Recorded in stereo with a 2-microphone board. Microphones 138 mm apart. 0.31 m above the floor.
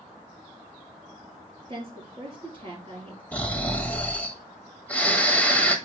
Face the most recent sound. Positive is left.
turn(degrees=10)  # may be behind; listen again after turning